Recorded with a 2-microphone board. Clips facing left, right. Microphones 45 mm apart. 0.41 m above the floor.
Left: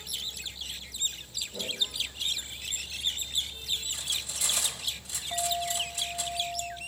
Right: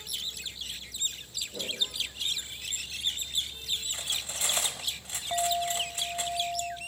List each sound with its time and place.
1.5 s a whoosh: 35° right (ahead or behind), 9.5 m
3.9 s cutlery clinking: 40° right (ahead or behind), 1.2 m
5.3 s a clink: 50° right (ahead or behind), 1.1 m